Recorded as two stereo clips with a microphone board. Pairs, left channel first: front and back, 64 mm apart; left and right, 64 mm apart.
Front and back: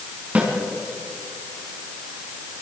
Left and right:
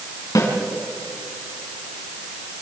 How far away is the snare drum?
About 5 m.